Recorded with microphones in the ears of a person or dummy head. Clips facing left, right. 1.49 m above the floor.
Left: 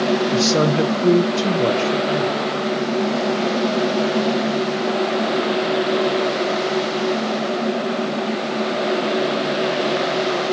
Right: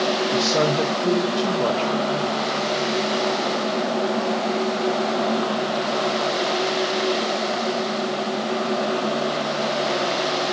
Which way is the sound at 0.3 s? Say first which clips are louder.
Left 3 dB; 25° left (ahead or behind).